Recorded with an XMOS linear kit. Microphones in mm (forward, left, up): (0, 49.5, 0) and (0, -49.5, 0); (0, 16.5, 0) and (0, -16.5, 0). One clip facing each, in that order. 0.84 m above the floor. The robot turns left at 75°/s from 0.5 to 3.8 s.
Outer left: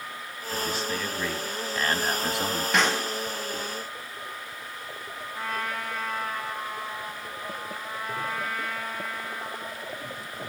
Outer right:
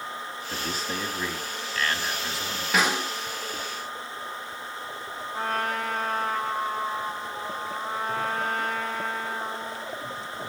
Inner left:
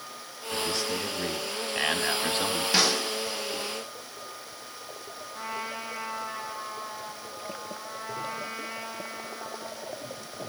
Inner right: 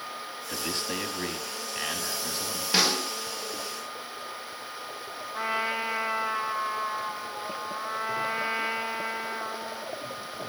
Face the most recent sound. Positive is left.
turn(degrees=-50)  # may be behind; listen again after turning